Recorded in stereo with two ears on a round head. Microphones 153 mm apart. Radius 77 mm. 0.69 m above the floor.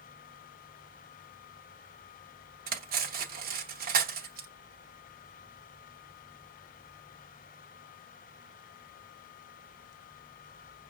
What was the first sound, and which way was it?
Cutlery clinking, 60° right (ahead or behind).